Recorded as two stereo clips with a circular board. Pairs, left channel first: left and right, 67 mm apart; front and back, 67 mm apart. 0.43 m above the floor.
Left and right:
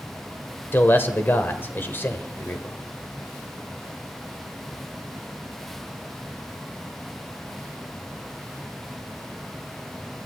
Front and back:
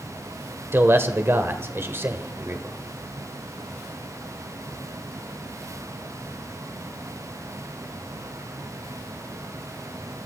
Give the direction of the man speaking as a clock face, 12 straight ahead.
7 o'clock.